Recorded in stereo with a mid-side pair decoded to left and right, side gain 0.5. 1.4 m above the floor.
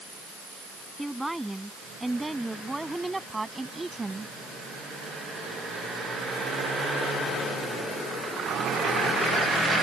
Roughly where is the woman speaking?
Ahead.